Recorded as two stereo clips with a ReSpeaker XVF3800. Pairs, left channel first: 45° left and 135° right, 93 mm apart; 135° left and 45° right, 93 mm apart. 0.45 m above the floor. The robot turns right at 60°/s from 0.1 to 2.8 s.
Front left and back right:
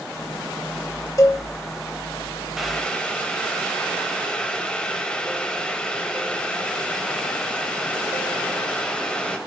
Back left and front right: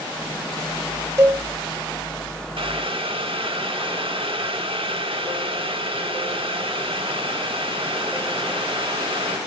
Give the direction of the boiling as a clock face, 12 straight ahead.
2 o'clock.